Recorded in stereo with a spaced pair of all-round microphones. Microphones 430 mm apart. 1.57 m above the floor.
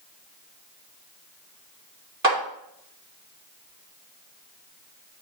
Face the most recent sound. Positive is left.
turn(degrees=-55)  # may be behind; listen again after turning